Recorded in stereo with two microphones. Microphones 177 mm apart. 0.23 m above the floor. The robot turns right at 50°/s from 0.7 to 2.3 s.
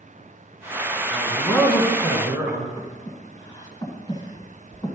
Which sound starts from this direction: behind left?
A man speaking, at 1.1 s.